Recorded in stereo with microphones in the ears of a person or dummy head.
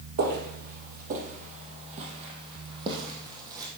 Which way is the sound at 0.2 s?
55° right (ahead or behind).